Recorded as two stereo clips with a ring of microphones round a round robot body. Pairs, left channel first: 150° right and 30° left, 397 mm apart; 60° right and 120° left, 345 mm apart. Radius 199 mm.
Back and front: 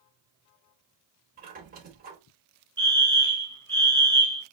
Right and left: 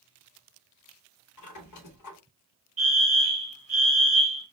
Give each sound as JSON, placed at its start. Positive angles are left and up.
{"t": 1.4, "sound": "a squeak", "azimuth_deg": -35, "distance_m": 0.9}
{"t": 2.8, "sound": "a fire alarm", "azimuth_deg": 135, "distance_m": 1.9}